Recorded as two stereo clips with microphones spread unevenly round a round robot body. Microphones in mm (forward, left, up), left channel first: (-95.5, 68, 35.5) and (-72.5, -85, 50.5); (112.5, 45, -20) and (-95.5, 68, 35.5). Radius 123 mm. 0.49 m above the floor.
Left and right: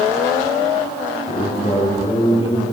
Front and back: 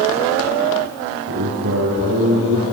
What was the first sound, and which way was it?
A man speaking, 150° left.